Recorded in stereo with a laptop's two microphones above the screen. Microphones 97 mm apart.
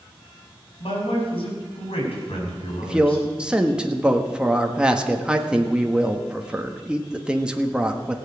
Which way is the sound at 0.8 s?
70° left (ahead or behind).